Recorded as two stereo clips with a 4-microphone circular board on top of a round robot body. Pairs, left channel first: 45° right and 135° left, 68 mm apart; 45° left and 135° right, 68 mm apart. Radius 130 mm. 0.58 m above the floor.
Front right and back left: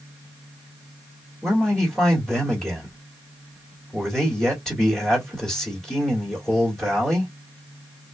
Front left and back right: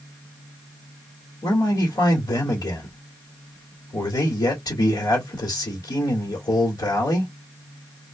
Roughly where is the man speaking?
Ahead left.